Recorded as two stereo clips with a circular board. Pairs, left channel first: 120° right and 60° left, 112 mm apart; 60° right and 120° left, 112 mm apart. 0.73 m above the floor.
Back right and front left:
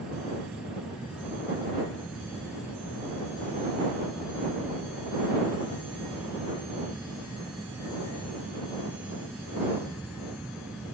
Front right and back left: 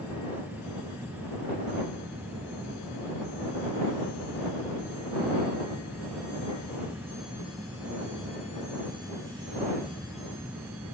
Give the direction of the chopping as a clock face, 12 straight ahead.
No chopping in this recording.